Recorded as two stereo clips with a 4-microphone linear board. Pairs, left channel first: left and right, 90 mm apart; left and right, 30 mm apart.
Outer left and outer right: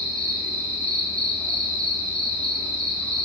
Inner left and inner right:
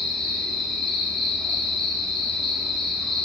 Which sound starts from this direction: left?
An insect, at 0.0 s.